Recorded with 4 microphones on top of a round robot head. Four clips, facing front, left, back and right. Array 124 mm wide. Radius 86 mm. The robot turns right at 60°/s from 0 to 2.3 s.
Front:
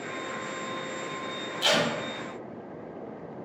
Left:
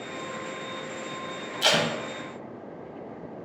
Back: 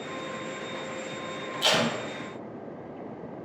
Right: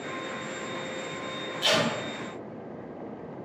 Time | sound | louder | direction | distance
1.6 | tape being pulled | left 1 dB, even | 95° left | 0.7 m